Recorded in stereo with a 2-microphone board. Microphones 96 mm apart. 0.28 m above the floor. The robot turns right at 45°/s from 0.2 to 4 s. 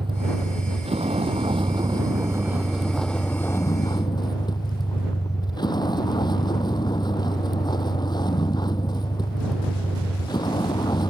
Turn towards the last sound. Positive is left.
turn(degrees=45)